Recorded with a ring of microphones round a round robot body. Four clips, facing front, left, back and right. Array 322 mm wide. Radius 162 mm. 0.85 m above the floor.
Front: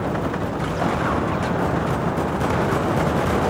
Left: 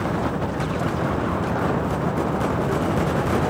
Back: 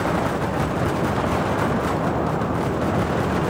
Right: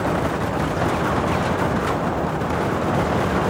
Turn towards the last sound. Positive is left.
No sound to turn to.